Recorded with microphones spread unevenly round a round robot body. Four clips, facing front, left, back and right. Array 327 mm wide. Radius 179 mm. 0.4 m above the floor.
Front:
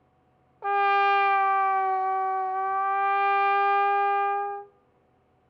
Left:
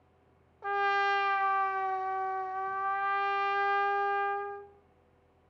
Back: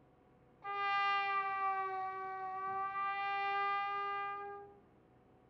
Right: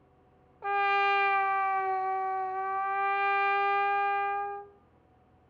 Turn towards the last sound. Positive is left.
turn(degrees=-10)